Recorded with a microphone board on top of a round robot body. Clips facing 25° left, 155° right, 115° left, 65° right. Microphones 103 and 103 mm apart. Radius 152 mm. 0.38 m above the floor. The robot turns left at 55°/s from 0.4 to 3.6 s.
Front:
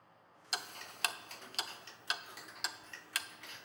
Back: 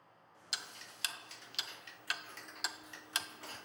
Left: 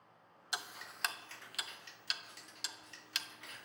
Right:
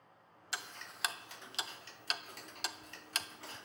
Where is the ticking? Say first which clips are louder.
Front 6 dB, left 1 dB; 45° left, 0.6 m; by 3.6 s 120° right, 0.6 m.